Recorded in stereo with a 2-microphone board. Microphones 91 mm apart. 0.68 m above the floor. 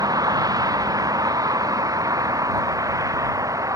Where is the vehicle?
45° right (ahead or behind); by 3.8 s 40° right (ahead or behind).